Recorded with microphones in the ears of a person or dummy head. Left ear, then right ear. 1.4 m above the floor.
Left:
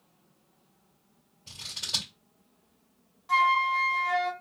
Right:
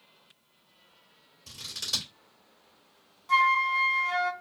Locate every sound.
1.5 s scissors: 40° right (ahead or behind), 2.5 m
3.3 s a flute: 10° right (ahead or behind), 1.3 m